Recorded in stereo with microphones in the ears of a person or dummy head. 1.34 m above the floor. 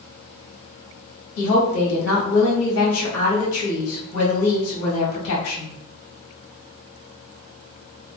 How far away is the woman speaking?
About 1.6 m.